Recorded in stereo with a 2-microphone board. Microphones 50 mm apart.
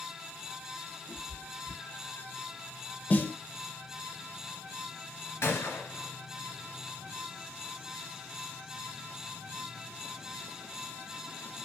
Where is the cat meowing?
75° left (ahead or behind), 2.5 m; by 2.3 s 55° left (ahead or behind), 2 m.